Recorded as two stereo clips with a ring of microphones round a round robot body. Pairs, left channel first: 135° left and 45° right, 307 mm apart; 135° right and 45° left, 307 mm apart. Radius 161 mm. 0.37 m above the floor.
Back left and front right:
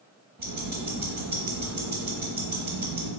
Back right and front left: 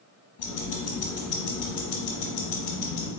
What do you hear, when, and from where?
0.4 s ticking: 105° right, 0.9 m